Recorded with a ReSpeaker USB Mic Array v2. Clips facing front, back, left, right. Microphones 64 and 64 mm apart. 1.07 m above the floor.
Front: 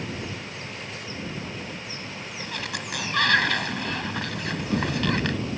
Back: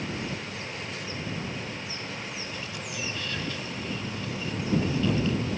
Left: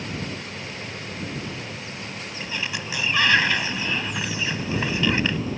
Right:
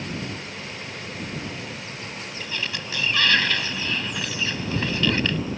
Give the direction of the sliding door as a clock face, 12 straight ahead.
11 o'clock.